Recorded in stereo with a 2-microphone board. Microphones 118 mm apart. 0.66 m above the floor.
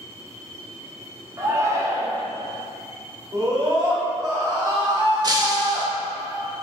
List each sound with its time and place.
1.4 s a shout: 25° right (ahead or behind), 1.0 m
3.3 s a scream: 40° right (ahead or behind), 1.9 m
5.2 s breaking glass: 35° right (ahead or behind), 0.7 m